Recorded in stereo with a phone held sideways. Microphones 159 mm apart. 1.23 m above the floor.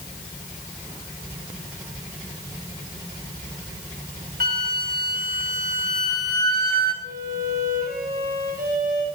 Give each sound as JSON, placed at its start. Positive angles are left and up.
{"t": 4.4, "sound": "a flute", "side_deg": -80, "distance_m": 3.0}
{"t": 7.0, "sound": "a violin", "side_deg": -75, "distance_m": 6.5}